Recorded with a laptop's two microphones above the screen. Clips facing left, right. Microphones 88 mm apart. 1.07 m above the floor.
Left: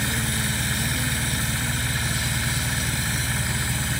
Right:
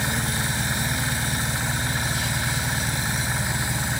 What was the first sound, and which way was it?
An engine running, 15° right (ahead or behind).